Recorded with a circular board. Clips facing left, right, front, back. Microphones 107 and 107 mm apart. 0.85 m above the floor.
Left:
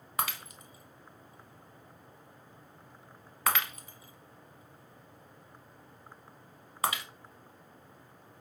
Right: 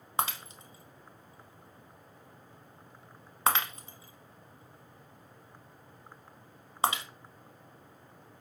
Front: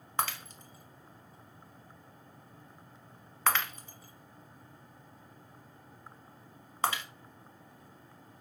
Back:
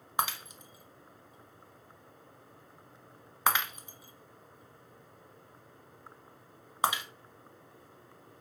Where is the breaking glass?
120° right, 0.8 m.